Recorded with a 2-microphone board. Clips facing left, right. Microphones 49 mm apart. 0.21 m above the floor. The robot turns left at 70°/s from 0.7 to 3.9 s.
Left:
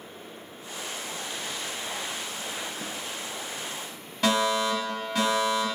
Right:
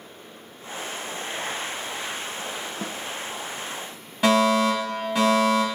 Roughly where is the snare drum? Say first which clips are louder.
Right 4 dB; right.